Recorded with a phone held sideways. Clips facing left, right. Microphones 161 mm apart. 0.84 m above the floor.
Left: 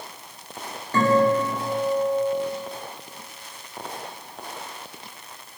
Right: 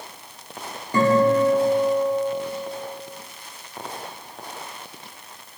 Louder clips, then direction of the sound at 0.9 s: Right 2 dB; 15° right (ahead or behind).